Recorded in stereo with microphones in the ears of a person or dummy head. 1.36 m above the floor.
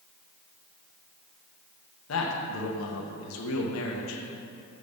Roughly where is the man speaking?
Left.